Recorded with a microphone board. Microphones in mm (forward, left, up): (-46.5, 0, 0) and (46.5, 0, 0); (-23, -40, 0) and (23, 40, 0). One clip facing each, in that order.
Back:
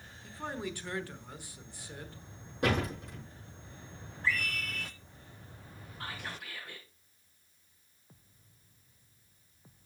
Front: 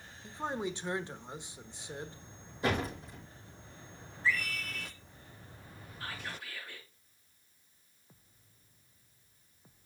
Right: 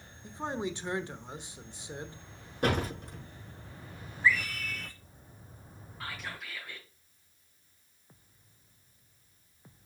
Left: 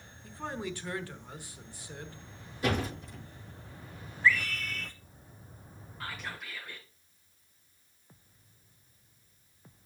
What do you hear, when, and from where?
0.2 s a man speaking: 60° right, 1.0 m
2.6 s a door slam: 155° right, 6 m
4.2 s a scream: 165° left, 2.5 m
6.0 s whispering: 150° left, 4 m